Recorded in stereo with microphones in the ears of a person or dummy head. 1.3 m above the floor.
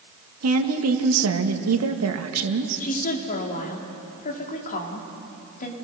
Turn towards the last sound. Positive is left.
turn(degrees=45)  # may be behind; listen again after turning